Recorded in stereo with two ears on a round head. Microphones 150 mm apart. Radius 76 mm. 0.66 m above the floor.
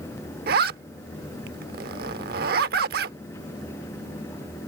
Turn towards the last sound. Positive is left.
turn(degrees=-65)  # may be behind; listen again after turning